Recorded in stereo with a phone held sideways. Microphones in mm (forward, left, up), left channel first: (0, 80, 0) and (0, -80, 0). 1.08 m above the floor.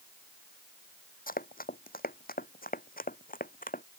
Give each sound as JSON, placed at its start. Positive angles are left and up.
{"t": 1.3, "sound": "running footsteps", "side_deg": 60}